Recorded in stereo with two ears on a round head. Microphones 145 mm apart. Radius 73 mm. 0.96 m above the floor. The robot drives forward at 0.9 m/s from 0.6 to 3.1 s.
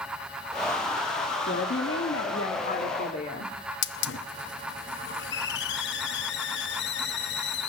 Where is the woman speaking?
75° left (ahead or behind), 1.6 m; by 3.5 s 55° left (ahead or behind), 1.9 m.